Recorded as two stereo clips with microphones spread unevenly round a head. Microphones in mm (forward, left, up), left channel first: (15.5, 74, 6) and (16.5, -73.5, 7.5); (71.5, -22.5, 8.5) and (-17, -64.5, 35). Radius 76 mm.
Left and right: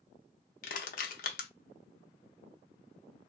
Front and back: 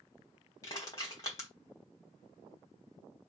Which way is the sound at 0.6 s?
100° left.